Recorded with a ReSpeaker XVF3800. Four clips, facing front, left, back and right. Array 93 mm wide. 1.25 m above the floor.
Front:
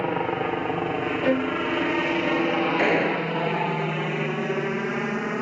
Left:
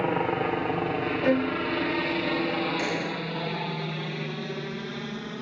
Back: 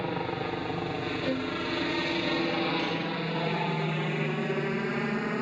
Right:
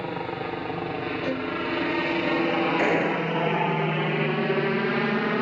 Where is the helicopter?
40° left; by 5.4 s 70° right.